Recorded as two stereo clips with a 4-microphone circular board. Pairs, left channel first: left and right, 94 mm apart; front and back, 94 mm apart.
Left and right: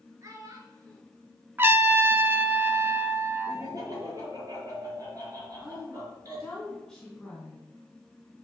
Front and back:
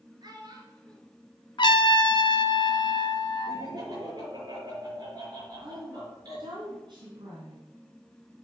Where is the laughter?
140° right, 4.5 m.